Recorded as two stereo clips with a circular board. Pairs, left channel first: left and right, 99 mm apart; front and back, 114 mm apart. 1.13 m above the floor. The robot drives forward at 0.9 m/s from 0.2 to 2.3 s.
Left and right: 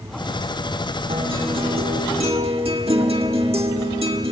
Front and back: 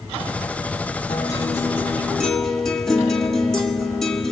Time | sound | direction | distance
1.1 | a guitar | 55° right | 2 m